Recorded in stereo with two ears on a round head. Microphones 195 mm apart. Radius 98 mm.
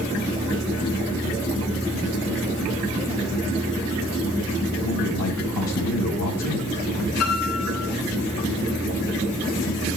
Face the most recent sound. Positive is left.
turn(degrees=85)